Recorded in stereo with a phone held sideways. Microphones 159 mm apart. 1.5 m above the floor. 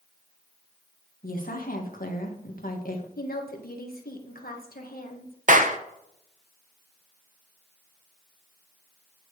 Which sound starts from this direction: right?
A clap, at 5.5 s.